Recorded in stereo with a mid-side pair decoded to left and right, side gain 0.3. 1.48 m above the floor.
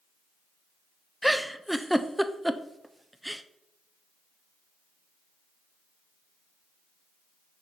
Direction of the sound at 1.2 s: 5° right.